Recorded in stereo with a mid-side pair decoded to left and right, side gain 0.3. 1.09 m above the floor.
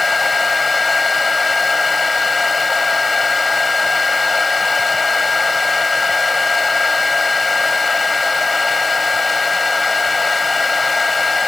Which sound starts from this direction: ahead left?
A fan, at 0.0 s.